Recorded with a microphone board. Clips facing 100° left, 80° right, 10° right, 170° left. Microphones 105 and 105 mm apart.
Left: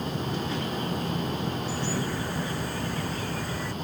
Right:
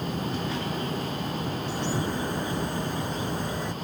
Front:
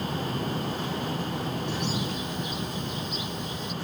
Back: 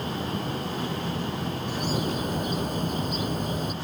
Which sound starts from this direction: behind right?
A bird, at 1.7 s.